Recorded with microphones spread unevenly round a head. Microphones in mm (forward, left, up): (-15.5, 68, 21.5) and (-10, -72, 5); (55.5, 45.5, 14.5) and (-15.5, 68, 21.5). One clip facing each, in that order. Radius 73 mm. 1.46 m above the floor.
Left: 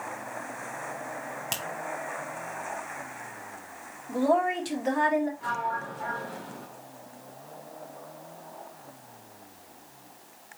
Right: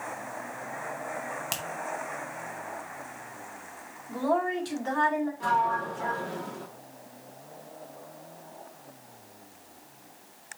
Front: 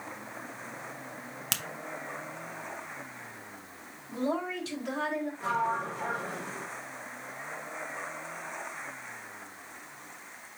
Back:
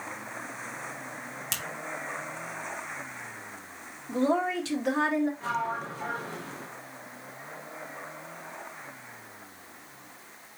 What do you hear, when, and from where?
1.5 s a finger snap: 5° left, 0.8 m
4.1 s a woman speaking: 165° left, 1.7 m
5.4 s a sliding door: 95° right, 1.3 m